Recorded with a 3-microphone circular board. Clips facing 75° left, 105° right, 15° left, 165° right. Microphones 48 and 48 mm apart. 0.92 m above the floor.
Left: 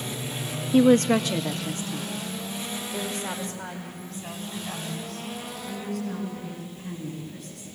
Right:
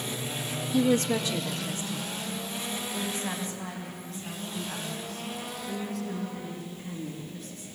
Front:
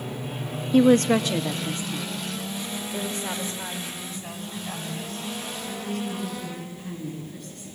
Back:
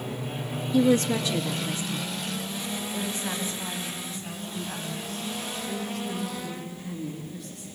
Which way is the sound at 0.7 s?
45° left.